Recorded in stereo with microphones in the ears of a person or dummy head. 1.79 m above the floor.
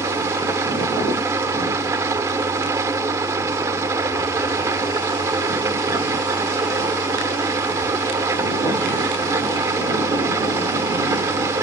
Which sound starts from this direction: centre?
An engine running, at 0.0 s.